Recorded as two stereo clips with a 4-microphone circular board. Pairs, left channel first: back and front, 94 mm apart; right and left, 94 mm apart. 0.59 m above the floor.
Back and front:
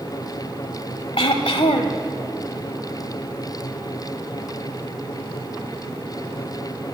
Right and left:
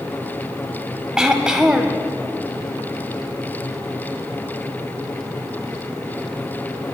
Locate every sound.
1.2 s throat clearing: 170° left, 0.6 m